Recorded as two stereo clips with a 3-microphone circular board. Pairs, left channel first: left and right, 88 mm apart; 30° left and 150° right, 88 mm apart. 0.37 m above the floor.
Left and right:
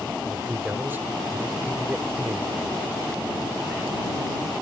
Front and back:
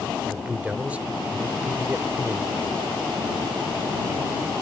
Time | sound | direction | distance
0.2 | a man speaking | 100° right | ?